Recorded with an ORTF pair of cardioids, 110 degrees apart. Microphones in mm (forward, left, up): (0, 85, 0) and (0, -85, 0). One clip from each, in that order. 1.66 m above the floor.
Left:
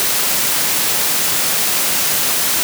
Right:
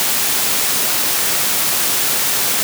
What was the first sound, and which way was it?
Only background noise.